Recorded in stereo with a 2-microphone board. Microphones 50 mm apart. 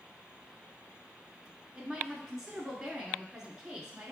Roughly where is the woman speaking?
Centre.